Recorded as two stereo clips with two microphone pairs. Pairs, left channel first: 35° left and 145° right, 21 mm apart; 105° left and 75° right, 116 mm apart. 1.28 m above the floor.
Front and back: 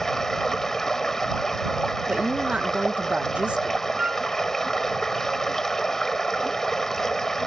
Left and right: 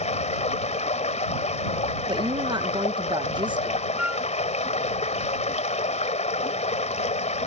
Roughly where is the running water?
Left.